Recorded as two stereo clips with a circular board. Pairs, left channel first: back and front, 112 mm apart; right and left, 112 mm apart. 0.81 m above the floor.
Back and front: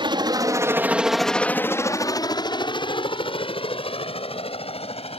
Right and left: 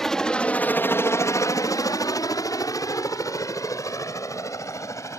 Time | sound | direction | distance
0.0 | a helicopter | 5° right | ?